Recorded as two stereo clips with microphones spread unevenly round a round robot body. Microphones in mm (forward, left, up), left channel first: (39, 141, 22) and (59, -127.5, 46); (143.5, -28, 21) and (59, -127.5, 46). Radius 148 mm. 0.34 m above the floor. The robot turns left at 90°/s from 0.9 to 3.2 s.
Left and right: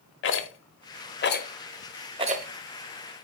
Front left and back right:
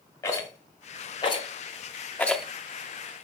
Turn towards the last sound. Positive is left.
turn(degrees=-105)